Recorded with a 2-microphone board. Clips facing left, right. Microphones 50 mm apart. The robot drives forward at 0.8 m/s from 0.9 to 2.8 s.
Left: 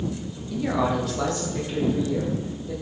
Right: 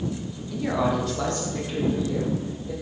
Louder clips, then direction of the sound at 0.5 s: Left 1 dB; centre (ahead or behind).